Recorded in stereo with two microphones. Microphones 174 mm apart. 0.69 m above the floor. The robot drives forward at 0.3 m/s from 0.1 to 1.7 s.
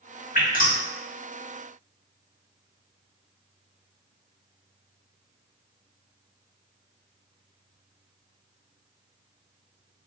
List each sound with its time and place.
0.3 s dripping: 50° left (ahead or behind), 1.4 m